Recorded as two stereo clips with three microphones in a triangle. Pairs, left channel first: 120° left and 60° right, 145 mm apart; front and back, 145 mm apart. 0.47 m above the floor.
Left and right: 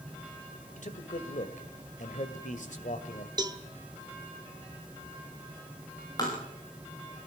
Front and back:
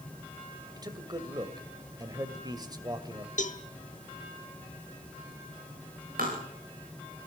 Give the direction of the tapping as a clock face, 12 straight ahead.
6 o'clock.